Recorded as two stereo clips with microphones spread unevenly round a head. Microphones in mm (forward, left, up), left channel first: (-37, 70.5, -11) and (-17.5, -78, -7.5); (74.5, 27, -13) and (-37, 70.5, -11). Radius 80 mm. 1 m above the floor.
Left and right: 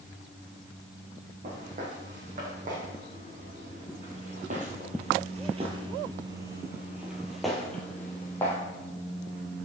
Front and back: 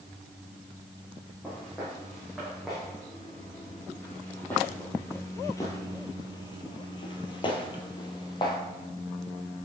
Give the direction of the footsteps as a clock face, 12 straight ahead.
4 o'clock.